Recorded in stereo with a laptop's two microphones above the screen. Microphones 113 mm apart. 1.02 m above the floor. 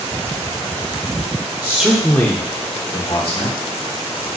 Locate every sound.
1.6 s a man speaking: 25° right (ahead or behind), 0.9 m; by 3.6 s 60° left (ahead or behind), 2 m